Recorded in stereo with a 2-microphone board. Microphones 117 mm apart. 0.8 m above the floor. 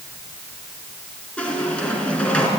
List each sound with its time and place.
1.4 s a squeak: 10° left (ahead or behind), 3.5 m